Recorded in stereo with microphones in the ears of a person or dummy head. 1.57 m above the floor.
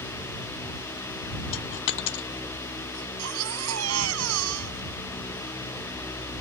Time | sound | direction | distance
1.5 | a dropped coin | 60° left (ahead or behind) | ?
2.9 | a baby crying | 75° right (ahead or behind) | ?